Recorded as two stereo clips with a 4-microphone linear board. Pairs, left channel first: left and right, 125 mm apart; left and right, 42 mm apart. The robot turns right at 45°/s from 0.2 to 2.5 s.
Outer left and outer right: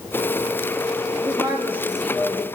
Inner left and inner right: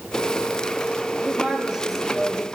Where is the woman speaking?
40° right, 5.5 m; by 2.4 s 15° left, 5.5 m.